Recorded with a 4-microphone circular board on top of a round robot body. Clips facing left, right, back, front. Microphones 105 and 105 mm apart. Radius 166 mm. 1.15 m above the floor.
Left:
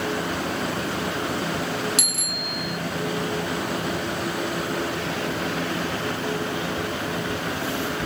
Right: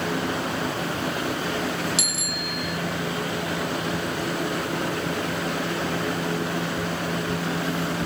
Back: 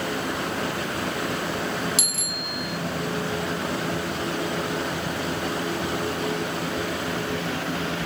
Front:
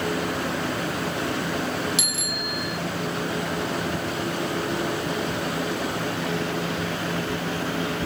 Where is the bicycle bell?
130° left.